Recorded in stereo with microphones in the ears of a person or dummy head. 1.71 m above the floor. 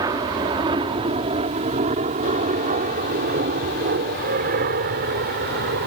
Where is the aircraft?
20° right (ahead or behind); by 5.9 s 55° right (ahead or behind).